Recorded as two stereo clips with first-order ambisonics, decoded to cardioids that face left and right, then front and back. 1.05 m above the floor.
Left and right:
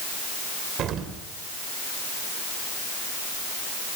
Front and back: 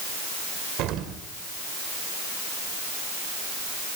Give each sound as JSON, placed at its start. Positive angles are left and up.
{"t": 0.8, "sound": "an explosion", "azimuth_deg": -140, "distance_m": 3.5}